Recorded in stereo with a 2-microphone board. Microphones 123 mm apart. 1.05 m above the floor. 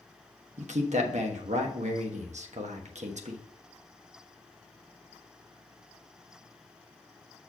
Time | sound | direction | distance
0.6 | a man speaking | 75° right (ahead or behind) | 1.2 m